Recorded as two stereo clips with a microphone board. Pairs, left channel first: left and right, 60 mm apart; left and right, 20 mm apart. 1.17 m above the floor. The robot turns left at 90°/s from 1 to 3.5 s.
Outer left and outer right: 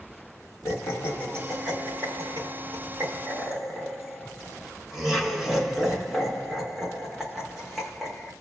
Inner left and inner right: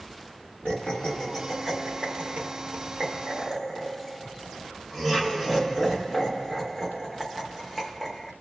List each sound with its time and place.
0.7 s laughter: 45° left (ahead or behind), 1.7 m; by 8.3 s centre (ahead or behind), 1.7 m